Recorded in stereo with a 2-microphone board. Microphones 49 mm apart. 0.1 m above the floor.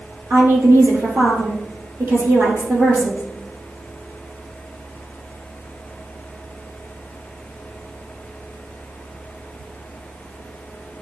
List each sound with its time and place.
0.3 s a woman speaking: 55° right (ahead or behind), 3.5 m